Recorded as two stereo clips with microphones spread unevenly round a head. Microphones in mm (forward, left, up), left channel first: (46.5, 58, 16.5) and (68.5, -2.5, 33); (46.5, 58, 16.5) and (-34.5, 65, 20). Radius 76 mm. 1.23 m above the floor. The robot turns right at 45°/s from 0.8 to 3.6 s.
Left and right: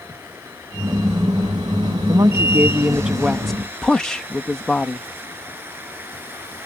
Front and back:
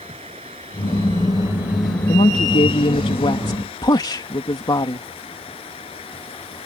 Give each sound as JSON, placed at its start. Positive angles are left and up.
{"t": 0.0, "sound": "running water", "azimuth_deg": -145}
{"t": 2.1, "sound": "a woman speaking", "azimuth_deg": -40}